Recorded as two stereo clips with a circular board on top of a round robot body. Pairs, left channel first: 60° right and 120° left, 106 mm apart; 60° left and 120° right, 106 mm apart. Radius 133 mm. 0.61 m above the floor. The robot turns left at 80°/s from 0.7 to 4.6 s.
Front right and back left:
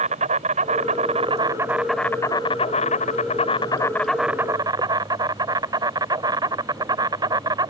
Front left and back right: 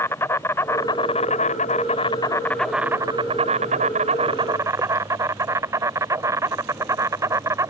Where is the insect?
130° left; by 7.7 s 175° left.